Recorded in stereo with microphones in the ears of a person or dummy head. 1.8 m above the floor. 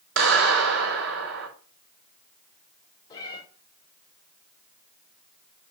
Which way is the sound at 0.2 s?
70° right (ahead or behind).